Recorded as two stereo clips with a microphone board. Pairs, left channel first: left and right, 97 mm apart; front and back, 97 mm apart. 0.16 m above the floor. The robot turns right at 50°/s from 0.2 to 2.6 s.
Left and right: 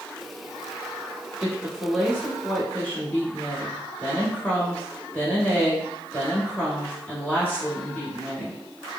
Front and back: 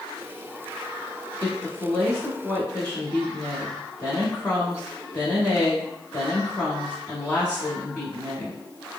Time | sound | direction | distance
1.4 | a woman speaking | 25° right | 1.3 m